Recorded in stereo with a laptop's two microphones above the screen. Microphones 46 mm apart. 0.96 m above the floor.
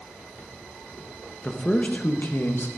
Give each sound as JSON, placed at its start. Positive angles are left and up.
{"t": 1.4, "sound": "a man speaking", "side_deg": 15, "distance_m": 1.0}